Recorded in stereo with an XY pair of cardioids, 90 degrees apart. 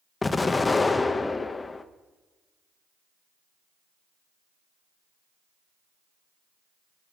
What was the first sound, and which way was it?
An explosion, 25° left.